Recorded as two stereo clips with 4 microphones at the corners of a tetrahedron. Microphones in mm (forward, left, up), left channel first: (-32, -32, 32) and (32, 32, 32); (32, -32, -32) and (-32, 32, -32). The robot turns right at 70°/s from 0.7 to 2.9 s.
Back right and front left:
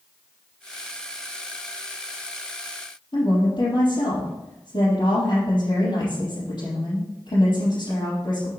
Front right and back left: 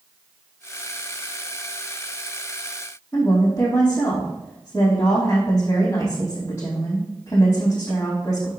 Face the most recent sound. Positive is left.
turn(degrees=-105)